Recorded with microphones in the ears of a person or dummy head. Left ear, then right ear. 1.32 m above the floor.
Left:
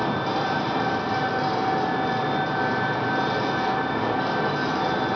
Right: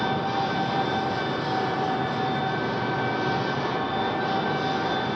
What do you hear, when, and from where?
0.0 s an engine running: 60° left (ahead or behind), 0.9 m